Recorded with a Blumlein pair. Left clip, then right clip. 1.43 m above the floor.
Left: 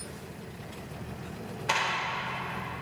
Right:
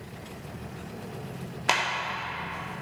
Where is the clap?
30° right, 2 m.